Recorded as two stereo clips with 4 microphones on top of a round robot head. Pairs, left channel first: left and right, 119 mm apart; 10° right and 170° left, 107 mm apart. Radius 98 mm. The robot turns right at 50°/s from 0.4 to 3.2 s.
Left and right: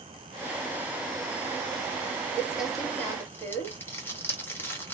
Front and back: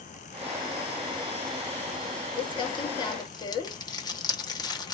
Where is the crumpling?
20° right, 0.9 m; by 4.9 s 25° left, 0.9 m.